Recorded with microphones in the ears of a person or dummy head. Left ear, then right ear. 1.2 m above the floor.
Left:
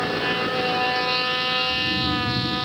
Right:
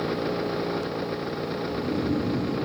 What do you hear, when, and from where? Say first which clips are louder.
1.6 s snoring: left 6 dB; 20° left (ahead or behind), 3 m